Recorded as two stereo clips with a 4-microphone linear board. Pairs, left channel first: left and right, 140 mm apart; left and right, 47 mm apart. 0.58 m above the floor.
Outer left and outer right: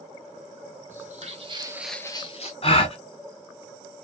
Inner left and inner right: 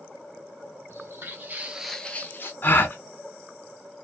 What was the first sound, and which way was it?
Footsteps, 60° right (ahead or behind).